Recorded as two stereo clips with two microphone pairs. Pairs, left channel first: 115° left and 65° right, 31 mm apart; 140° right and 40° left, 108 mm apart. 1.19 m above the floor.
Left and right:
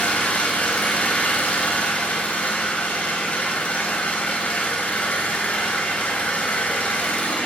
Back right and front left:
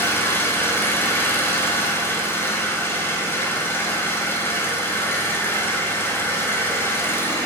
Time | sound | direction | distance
0.0 | an engine running | 150° left | 3 m